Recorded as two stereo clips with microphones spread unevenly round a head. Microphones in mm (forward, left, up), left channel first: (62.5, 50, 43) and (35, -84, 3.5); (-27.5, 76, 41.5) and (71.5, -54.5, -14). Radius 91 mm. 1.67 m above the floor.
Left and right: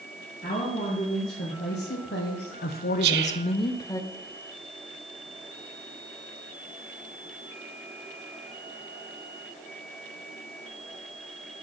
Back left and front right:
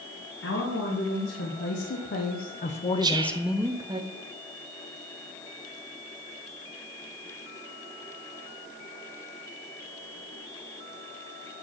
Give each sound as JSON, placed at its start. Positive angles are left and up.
{"t": 0.4, "sound": "a woman speaking", "azimuth_deg": 125, "distance_m": 2.5}
{"t": 3.0, "sound": "whispering", "azimuth_deg": -130, "distance_m": 0.8}